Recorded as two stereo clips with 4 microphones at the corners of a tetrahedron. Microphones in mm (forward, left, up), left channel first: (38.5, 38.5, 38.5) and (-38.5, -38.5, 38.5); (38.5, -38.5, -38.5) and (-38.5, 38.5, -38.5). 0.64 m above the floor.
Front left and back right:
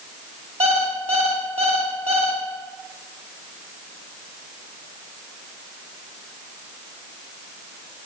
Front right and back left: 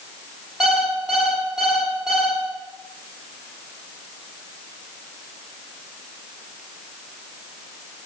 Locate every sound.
0.6 s an alarm clock: 140° right, 2 m